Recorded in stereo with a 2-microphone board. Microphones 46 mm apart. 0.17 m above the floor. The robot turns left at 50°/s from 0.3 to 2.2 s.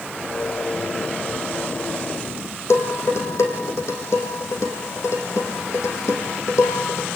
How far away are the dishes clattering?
About 5.5 m.